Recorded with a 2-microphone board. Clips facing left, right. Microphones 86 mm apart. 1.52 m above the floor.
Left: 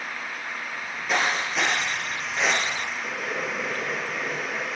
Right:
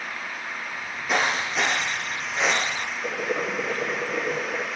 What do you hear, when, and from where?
0.7 s footsteps: 5° right (ahead or behind), 1.9 m; by 2.9 s 10° right (ahead or behind), 1.5 m
3.0 s boiling: 55° right (ahead or behind), 1.3 m